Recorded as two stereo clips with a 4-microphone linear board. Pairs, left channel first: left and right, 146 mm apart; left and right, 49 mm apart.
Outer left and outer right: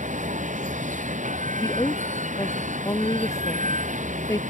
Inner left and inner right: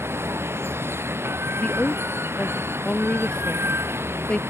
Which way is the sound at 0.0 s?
60° right (ahead or behind).